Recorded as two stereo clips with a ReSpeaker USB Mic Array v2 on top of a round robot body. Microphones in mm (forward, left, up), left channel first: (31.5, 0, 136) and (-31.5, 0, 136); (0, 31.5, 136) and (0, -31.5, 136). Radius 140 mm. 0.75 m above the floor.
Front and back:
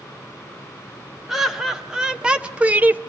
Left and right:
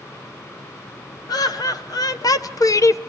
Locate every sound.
1.3 s laughter: 95° left, 1.9 m; by 3.0 s 120° left, 0.9 m